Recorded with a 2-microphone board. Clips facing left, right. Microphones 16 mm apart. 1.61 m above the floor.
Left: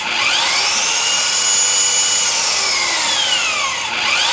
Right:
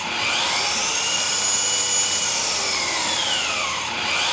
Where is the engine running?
45° left (ahead or behind), 0.8 m.